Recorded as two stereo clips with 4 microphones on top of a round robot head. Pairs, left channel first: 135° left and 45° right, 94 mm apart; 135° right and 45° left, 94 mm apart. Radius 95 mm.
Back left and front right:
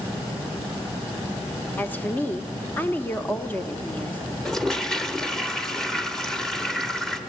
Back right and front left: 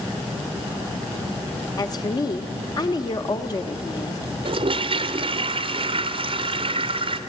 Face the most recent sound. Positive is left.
turn(degrees=55)